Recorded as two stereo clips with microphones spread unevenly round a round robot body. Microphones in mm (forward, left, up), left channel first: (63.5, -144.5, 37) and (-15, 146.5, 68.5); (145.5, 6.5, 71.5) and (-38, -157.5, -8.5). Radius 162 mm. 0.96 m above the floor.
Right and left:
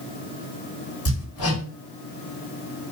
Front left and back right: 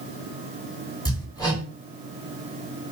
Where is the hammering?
35° right, 2.5 m.